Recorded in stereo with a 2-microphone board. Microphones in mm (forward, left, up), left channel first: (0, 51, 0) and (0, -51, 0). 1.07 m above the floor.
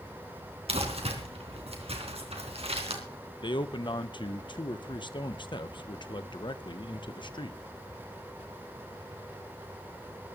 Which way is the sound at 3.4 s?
50° left (ahead or behind).